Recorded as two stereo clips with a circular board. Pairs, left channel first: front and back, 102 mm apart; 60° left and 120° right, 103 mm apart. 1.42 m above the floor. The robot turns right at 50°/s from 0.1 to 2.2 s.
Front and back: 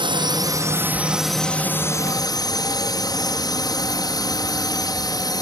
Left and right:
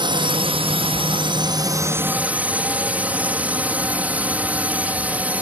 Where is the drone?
150° right; by 5.4 s 45° right.